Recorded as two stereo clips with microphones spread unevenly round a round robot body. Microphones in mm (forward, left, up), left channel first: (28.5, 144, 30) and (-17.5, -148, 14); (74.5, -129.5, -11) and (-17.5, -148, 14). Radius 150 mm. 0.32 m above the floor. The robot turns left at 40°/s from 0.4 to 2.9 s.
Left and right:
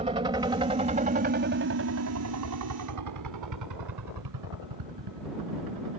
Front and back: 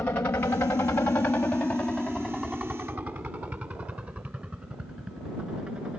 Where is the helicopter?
40° right; by 6.0 s 90° right.